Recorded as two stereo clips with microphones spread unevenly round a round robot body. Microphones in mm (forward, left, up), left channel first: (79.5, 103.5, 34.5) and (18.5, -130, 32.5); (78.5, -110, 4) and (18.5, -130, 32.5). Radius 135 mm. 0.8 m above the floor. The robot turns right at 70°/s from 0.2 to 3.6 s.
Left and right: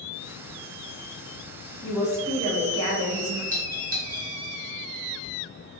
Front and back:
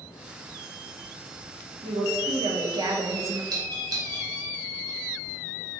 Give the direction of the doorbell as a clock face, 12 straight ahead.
5 o'clock.